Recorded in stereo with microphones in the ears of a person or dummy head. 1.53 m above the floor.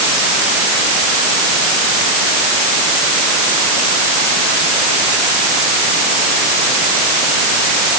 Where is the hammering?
I don't hear hammering.